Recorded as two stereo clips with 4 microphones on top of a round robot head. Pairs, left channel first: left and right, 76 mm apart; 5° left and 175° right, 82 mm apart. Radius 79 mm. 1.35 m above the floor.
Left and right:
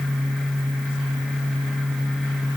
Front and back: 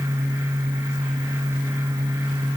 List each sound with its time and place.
Only background noise.